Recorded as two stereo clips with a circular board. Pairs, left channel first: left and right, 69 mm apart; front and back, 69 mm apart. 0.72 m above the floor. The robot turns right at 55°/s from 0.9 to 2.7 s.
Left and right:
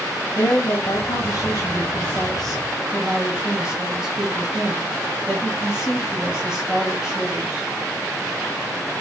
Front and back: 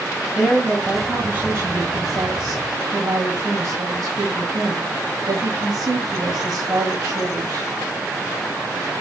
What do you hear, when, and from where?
0.3 s a woman speaking: 95° left, 4.5 m; by 7.7 s 170° right, 4.5 m